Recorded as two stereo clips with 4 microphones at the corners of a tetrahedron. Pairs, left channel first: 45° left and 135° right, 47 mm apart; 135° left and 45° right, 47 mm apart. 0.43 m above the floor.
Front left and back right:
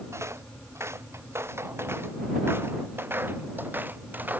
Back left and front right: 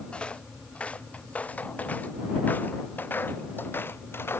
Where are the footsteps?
160° right; by 4.4 s 170° left.